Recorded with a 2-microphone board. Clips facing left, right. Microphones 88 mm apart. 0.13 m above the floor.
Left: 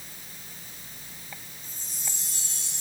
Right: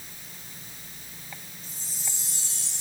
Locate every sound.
1.6 s a chime: 35° right (ahead or behind), 6.5 m